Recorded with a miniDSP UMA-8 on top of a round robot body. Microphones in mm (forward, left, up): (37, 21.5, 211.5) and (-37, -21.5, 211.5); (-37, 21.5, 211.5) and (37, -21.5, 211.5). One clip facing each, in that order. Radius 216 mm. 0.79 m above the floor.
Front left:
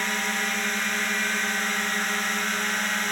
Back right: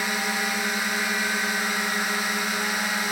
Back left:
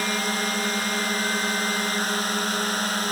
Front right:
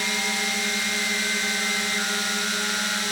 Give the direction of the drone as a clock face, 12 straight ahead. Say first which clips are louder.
Back right 1 dB, back left 2 dB; 8 o'clock.